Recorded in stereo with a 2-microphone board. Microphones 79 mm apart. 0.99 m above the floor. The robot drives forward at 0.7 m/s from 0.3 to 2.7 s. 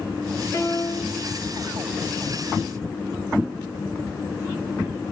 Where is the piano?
35° left (ahead or behind), 0.9 m; by 1.2 s 55° left (ahead or behind), 0.6 m.